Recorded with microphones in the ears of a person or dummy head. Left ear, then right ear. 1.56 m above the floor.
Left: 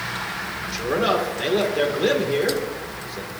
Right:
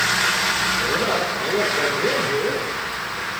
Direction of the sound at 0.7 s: 90° left.